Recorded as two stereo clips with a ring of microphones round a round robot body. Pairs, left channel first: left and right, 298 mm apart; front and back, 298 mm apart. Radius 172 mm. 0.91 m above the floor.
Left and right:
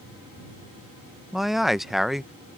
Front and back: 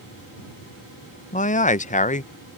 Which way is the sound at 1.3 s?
Straight ahead.